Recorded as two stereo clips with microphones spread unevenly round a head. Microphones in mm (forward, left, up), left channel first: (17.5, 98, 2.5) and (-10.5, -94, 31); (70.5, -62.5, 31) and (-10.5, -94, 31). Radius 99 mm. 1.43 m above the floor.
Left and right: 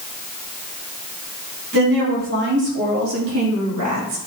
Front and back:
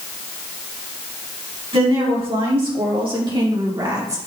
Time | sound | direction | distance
1.7 | a woman speaking | 145° right | 4 m